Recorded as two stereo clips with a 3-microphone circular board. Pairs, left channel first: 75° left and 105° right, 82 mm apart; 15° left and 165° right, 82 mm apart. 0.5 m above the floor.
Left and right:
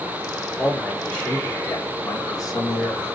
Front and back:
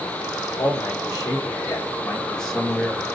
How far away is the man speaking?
About 1.2 m.